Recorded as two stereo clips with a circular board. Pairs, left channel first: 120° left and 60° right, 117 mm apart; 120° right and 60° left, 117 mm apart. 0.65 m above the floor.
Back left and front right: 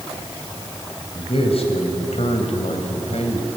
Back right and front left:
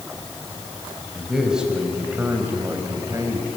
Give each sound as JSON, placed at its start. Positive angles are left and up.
{"t": 1.1, "sound": "a man speaking", "azimuth_deg": 150, "distance_m": 3.0}